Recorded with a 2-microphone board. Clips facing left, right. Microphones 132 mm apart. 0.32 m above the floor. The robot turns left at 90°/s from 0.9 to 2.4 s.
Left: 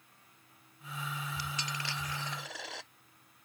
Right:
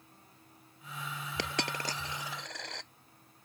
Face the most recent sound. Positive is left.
turn(degrees=5)  # may be behind; listen again after turning